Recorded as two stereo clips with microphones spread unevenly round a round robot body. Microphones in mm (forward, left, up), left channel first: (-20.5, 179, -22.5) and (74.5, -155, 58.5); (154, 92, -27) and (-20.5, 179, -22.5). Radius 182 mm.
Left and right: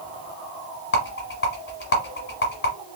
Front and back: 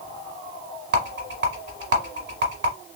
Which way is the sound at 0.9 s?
175° left.